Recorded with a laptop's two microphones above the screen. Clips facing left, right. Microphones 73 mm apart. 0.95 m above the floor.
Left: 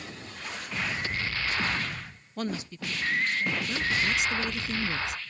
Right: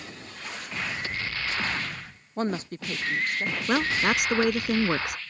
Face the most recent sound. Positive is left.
turn(degrees=-65)  # may be behind; listen again after turning